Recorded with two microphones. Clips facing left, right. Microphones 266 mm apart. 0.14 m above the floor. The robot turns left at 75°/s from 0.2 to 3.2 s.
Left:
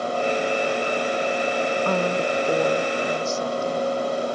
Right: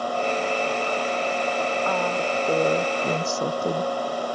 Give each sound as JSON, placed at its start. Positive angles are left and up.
{"t": 1.9, "sound": "a woman speaking", "azimuth_deg": 45}